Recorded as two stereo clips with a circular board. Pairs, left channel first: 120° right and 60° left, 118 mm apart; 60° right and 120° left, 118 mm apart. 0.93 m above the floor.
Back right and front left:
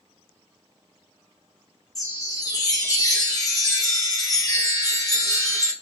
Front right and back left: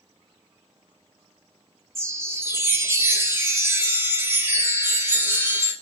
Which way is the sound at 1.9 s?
175° right.